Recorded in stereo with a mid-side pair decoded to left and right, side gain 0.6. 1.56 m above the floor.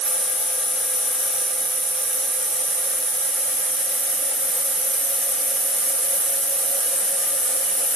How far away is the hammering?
I don't hear hammering.